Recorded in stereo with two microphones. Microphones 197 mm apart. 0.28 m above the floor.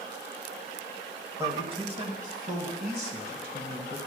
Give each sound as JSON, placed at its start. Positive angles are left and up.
{"t": 1.4, "sound": "a man speaking", "side_deg": -15, "distance_m": 1.0}